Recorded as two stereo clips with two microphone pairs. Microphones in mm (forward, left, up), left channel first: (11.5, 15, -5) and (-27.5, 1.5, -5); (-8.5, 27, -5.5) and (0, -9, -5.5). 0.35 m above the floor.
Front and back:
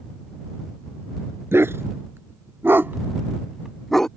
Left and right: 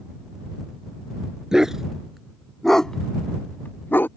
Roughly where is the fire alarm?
I don't hear a fire alarm.